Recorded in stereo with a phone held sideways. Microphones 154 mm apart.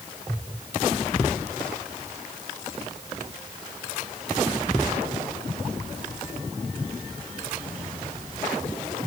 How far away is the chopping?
I don't hear chopping.